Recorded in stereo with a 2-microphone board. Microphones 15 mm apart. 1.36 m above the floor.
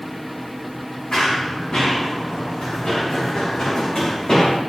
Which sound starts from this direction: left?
Running footsteps, at 1.1 s.